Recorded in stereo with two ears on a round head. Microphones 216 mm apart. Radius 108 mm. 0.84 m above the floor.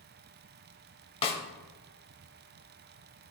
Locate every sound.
1.2 s a snare drum: 25° left (ahead or behind), 0.8 m